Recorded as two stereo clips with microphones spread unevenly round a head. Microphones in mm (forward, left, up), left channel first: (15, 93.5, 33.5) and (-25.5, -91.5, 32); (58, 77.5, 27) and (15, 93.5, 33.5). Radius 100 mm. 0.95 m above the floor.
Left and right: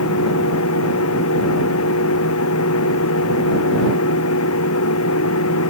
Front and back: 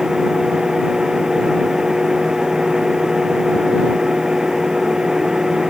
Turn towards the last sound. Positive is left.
turn(degrees=80)